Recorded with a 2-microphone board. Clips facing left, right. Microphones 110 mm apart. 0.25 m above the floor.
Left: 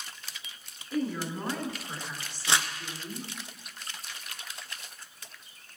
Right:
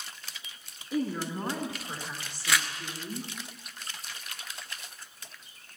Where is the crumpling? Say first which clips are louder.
Left 1 dB; 30° left (ahead or behind), 1.1 m.